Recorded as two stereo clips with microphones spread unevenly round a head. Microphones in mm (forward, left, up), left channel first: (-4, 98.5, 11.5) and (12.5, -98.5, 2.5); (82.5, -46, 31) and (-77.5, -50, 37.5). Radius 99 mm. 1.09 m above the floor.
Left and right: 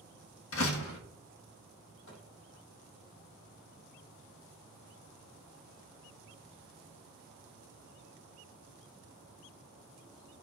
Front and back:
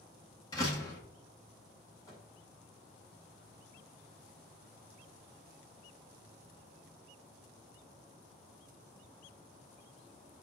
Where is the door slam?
75° left, 1.4 m.